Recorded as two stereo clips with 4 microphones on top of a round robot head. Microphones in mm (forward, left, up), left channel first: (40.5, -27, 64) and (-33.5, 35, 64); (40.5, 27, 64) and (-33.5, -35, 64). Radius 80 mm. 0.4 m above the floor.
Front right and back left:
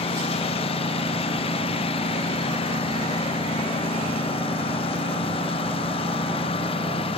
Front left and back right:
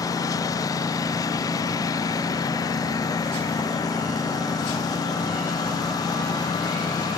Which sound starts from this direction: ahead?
A lawn mower, at 0.0 s.